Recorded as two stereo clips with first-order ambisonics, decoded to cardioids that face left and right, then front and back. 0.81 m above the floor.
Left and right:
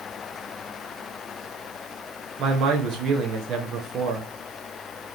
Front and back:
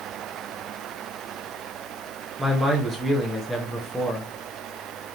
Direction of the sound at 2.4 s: 95° right.